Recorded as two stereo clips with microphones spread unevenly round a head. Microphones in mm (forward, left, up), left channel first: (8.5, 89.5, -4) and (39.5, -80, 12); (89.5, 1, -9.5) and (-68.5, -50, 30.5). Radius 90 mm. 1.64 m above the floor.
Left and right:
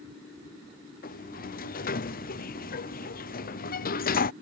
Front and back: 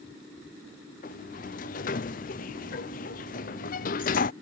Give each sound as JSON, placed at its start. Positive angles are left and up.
{"t": 1.0, "sound": "a sliding door", "azimuth_deg": 60}